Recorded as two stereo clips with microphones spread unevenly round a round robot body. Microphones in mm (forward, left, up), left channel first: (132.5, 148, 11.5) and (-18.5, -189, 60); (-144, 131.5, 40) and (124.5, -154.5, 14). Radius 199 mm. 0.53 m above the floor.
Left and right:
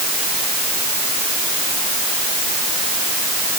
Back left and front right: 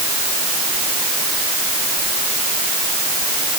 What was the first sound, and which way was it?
Only background noise.